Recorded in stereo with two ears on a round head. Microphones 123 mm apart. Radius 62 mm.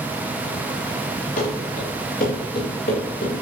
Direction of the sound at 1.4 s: 55° left (ahead or behind).